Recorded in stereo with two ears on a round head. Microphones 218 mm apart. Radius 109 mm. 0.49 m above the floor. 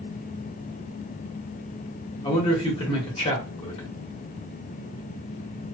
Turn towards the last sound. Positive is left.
turn(degrees=25)  # may be behind; listen again after turning